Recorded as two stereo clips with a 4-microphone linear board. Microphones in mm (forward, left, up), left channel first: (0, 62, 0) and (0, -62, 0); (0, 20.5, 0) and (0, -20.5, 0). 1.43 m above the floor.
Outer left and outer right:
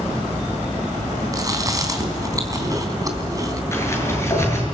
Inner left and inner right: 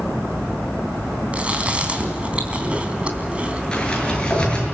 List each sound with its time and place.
1.3 s chewing: 30° right (ahead or behind), 3.5 m
3.7 s a sliding door: 20° left (ahead or behind), 6.5 m